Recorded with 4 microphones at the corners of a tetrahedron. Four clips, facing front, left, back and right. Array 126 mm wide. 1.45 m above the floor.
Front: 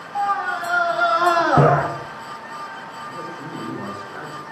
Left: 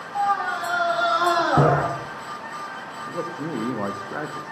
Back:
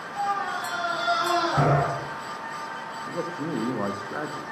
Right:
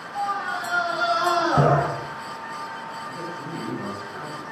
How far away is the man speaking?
About 1.9 m.